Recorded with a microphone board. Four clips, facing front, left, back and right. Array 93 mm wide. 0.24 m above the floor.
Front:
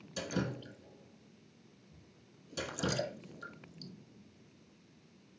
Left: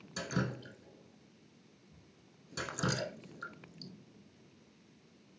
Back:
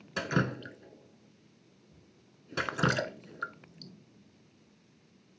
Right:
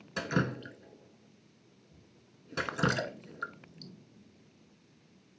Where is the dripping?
155° right, 0.7 m.